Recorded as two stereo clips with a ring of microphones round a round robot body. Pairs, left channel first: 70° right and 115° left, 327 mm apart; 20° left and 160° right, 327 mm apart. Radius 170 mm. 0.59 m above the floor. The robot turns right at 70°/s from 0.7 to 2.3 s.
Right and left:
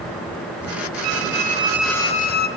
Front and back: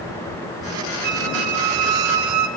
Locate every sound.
1.0 s a squeak: 145° left, 1.0 m; by 2.5 s 125° right, 1.0 m